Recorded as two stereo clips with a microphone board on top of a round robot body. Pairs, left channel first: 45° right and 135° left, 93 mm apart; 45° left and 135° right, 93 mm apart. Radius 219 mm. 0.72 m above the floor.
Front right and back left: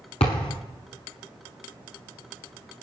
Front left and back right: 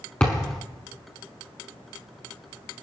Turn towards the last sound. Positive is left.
turn(degrees=-30)